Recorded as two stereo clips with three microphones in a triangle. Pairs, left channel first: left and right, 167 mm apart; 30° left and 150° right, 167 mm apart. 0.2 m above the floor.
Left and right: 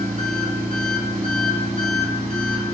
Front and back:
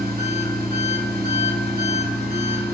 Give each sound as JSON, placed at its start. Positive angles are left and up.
{"t": 0.0, "sound": "an engine running", "azimuth_deg": -130, "distance_m": 1.6}